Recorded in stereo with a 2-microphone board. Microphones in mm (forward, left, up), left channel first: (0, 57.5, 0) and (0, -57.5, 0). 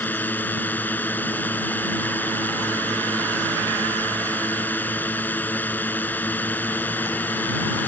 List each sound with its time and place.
0.0 s a drone: 15° left (ahead or behind)